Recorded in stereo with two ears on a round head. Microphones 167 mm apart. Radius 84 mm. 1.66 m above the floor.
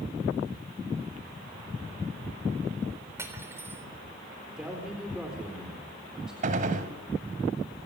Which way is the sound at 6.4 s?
45° right (ahead or behind).